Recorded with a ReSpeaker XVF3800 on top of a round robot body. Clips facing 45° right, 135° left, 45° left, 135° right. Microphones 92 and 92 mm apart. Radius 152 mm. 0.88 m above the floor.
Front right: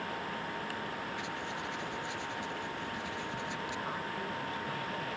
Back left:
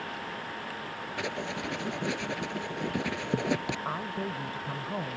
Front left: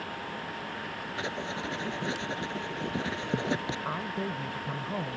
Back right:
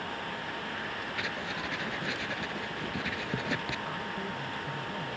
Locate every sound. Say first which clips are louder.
1.2 s writing: back left 5 dB, front left 4 dB; 105° left
3.9 s a woman speaking: back left 4 dB, front left 3 dB; 85° left